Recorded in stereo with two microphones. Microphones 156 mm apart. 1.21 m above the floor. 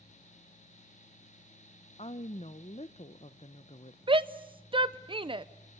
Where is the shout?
35° right (ahead or behind), 0.7 m.